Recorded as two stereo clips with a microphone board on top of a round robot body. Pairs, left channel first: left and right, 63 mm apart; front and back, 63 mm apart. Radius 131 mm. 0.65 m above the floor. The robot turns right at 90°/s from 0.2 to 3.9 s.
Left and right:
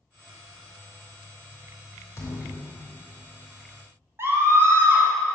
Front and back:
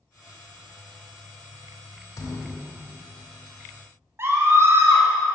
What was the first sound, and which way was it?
A thud, 40° left.